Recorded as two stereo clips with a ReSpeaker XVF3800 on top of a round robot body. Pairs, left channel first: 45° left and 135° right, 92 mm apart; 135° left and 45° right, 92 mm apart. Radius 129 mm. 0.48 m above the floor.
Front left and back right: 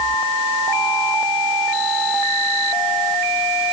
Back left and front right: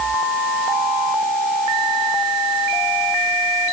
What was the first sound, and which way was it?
Only background noise.